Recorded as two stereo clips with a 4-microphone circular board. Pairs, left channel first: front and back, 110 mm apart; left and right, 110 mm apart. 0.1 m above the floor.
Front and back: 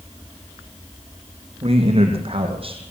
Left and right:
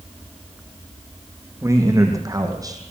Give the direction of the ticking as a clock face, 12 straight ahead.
I don't hear ticking.